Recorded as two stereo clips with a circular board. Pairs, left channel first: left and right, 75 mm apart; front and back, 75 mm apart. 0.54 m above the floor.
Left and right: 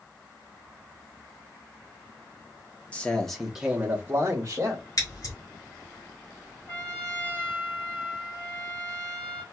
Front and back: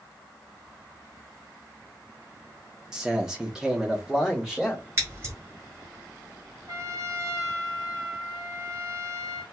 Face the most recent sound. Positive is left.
turn(degrees=155)